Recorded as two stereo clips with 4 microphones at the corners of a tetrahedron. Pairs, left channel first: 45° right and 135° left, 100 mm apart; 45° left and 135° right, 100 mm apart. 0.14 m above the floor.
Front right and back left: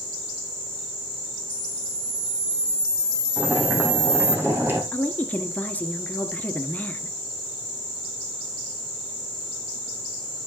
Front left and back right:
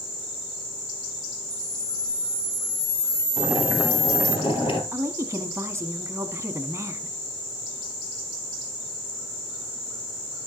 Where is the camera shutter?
85° left, 0.8 m.